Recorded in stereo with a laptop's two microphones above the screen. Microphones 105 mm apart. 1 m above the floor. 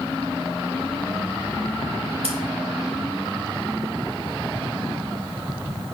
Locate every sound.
2.2 s scissors: 70° right (ahead or behind), 1.2 m